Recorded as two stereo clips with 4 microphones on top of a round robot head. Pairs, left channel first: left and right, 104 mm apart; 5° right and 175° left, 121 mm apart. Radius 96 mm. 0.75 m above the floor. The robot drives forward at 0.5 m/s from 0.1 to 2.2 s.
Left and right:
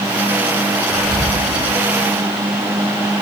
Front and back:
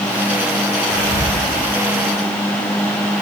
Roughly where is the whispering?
Behind.